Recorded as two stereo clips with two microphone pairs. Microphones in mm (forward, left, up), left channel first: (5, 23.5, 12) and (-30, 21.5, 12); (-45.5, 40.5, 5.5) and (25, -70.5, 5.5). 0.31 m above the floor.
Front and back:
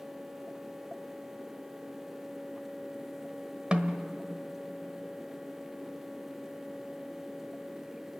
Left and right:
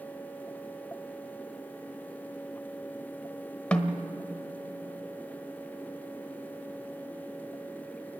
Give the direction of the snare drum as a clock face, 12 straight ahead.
5 o'clock.